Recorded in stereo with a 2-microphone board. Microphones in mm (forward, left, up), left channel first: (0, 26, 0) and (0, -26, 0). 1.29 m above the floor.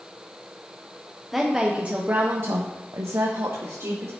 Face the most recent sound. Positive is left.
turn(degrees=-70)  # may be behind; listen again after turning